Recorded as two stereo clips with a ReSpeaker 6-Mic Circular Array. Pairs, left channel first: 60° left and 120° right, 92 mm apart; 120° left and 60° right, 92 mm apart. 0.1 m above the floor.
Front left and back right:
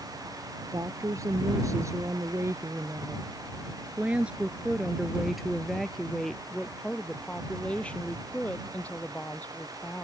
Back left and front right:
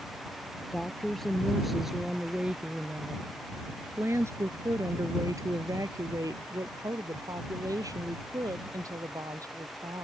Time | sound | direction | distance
0.7 | a woman speaking | 160° right | ?